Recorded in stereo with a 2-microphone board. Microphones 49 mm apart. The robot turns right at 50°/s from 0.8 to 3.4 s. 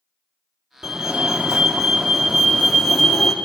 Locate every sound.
0.8 s a fire alarm: 20° right (ahead or behind), 1.2 m; by 3.3 s 5° left (ahead or behind), 1.2 m